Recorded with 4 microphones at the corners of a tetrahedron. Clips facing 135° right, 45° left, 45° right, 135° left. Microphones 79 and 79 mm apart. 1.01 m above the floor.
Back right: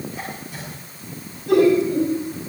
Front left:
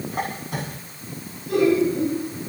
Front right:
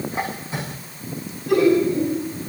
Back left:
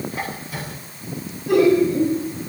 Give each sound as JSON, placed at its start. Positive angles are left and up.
{"t": 0.1, "sound": "a squeak", "azimuth_deg": 20, "distance_m": 6.5}
{"t": 1.5, "sound": "laughter", "azimuth_deg": -150, "distance_m": 9.0}